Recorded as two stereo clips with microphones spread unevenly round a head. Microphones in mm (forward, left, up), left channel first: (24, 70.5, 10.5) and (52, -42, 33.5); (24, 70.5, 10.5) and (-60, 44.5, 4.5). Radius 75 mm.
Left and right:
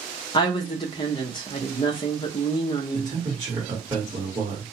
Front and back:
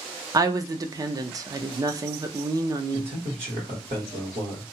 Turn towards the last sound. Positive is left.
turn(degrees=-140)